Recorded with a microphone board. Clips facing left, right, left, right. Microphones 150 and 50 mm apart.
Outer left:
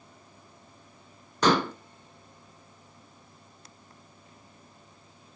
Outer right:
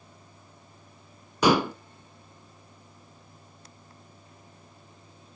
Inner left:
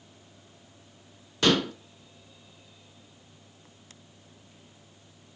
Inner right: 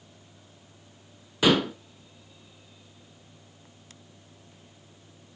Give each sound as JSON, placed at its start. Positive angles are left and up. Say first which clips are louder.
{"t": 1.4, "sound": "dishes clattering", "louder": "outer right 2 dB, inner right 2 dB", "side_deg": -10, "distance_m": 0.8}